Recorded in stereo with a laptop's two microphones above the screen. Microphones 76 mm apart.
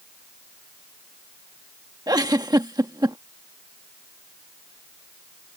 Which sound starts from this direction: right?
A giggle, at 2.1 s.